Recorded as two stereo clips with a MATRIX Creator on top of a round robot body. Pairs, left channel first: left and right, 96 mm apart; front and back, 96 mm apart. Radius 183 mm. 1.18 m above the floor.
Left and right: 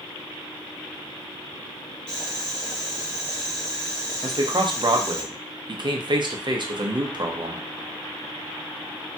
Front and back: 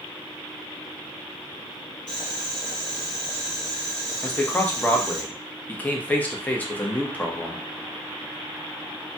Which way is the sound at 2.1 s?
45° left.